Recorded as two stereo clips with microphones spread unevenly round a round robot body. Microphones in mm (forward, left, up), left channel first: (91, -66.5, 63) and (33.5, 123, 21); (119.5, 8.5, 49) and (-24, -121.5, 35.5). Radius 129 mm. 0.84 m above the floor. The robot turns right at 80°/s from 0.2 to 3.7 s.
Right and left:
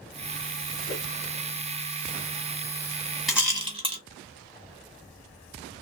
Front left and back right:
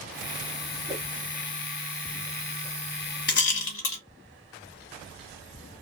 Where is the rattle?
20° left, 1.6 m; by 4.0 s 55° left, 1.6 m.